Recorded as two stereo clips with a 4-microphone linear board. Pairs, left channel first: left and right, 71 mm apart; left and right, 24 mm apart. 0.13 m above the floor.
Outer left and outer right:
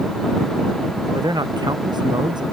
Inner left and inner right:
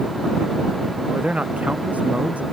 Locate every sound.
1.1 s a man speaking: 80° right